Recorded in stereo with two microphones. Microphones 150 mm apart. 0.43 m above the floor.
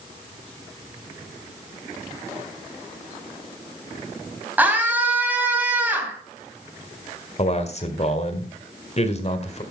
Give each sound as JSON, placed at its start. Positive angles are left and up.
{"t": 4.6, "sound": "a scream", "side_deg": -10, "distance_m": 3.0}
{"t": 7.4, "sound": "a man speaking", "side_deg": 45, "distance_m": 1.9}